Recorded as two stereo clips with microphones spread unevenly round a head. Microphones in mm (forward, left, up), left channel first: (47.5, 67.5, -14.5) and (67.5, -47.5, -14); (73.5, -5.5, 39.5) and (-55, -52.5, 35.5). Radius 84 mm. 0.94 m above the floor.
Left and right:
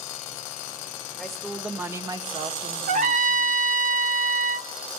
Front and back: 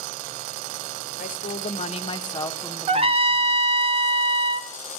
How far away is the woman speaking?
About 1.3 m.